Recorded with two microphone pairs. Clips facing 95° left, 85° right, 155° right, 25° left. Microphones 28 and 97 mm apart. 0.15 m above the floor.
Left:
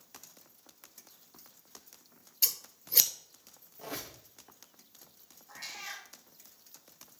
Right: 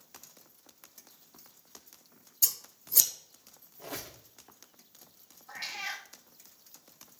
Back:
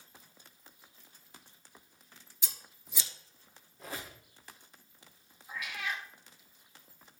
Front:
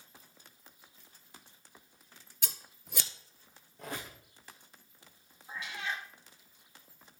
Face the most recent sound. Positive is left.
turn(degrees=-35)